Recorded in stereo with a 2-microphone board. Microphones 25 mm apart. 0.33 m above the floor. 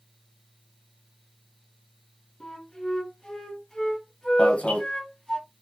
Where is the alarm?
55° left (ahead or behind), 1.8 m.